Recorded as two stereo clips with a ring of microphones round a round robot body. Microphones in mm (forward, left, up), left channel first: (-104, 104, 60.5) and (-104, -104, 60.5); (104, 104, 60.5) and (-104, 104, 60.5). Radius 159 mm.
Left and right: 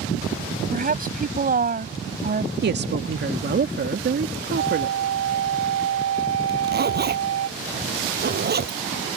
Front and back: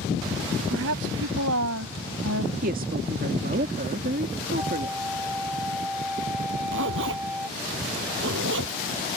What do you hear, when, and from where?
0.7 s a woman speaking: 135° right
2.6 s a woman speaking: 125° right
4.6 s a flute: 90° right
6.5 s a zipper: 130° right